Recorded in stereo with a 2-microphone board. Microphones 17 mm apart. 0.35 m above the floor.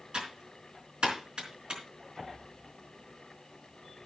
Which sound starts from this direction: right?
Typing on a keyboard, at 0.1 s.